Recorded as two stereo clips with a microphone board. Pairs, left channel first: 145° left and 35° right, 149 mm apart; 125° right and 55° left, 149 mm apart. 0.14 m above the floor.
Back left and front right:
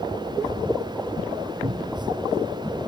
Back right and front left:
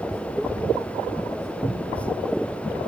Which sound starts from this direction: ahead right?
A cupboard door, at 1.6 s.